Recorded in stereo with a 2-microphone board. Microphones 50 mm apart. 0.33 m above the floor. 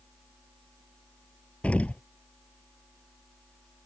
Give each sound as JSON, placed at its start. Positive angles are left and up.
{"t": 1.6, "sound": "an explosion", "side_deg": 25}